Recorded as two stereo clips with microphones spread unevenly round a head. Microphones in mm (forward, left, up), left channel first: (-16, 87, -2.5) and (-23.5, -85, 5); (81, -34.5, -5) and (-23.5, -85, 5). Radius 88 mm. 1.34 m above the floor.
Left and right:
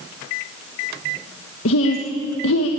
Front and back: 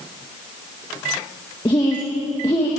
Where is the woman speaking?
95° left, 1.5 m.